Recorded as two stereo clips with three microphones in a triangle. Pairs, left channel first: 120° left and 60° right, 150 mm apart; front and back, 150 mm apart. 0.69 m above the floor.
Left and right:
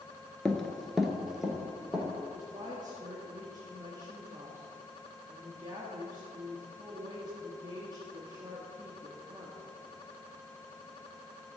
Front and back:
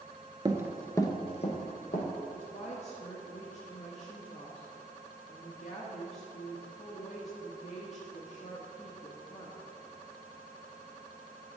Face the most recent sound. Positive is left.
turn(degrees=-5)